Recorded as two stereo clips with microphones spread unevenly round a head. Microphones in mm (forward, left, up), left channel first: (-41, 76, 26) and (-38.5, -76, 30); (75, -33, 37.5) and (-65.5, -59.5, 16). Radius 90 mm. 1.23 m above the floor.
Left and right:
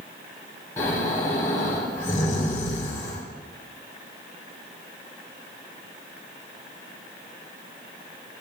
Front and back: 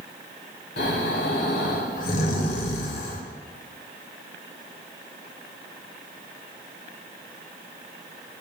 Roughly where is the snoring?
Ahead.